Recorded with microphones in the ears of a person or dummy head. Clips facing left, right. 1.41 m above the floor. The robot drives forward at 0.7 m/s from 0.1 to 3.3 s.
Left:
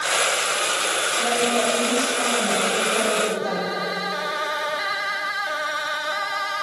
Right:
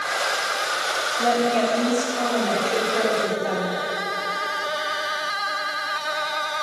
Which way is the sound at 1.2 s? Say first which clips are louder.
Right 2 dB; 40° right (ahead or behind).